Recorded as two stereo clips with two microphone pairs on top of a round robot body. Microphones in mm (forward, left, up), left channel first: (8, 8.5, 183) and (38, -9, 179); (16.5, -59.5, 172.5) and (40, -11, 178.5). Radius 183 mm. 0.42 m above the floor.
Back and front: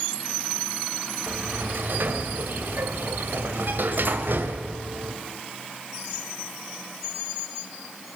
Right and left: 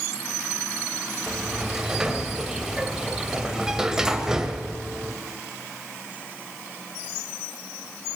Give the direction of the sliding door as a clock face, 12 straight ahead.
1 o'clock.